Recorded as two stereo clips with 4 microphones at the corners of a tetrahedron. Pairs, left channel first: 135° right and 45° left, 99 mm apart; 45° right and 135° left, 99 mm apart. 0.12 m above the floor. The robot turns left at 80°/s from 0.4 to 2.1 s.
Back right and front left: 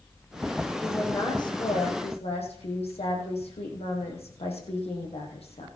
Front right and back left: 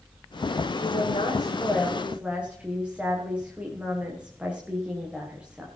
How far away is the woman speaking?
About 6 m.